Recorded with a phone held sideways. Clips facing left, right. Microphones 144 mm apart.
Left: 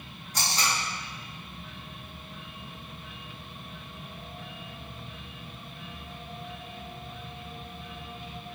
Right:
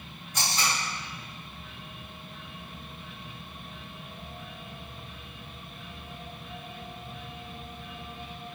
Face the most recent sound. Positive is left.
turn(degrees=35)  # may be behind; listen again after turning